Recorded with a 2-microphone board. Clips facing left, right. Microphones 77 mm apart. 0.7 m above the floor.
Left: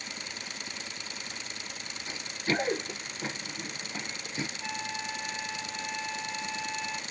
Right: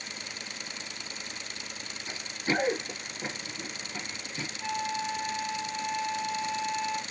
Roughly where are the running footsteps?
Right.